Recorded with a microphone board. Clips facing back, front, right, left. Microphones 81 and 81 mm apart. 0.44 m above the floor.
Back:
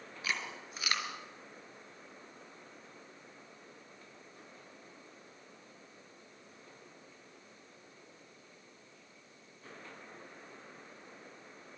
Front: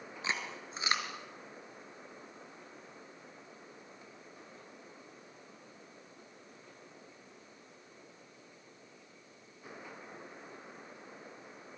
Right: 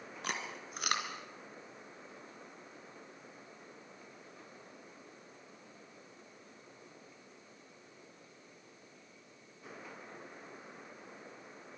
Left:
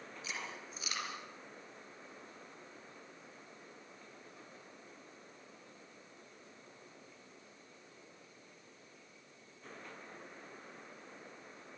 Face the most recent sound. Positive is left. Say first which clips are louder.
# front 1 dB, right 5 dB
turn(degrees=-65)